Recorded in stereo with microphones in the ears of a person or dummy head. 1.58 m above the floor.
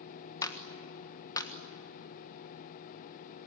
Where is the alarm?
I don't hear an alarm.